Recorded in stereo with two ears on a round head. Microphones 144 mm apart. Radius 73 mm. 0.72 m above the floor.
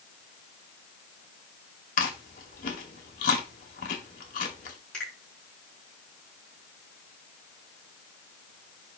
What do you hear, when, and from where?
2.0 s chewing: 50° left (ahead or behind), 2.0 m
4.9 s a finger snap: 5° left (ahead or behind), 5.5 m